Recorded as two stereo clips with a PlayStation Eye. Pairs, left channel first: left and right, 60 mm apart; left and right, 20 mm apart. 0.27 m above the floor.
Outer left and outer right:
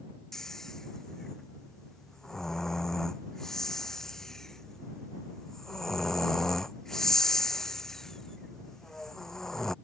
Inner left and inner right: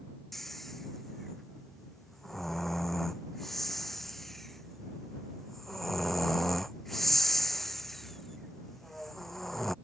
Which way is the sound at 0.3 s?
10° left (ahead or behind).